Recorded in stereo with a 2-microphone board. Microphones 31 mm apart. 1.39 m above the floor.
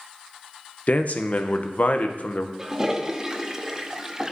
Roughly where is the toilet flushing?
Centre.